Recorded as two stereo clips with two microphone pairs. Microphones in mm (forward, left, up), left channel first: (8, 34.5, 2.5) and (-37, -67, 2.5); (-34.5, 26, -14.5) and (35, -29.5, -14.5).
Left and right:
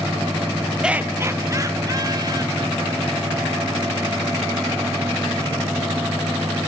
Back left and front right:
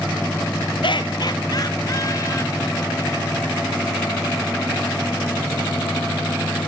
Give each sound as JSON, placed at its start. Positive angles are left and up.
{"t": 0.8, "sound": "laughter", "azimuth_deg": 165, "distance_m": 0.7}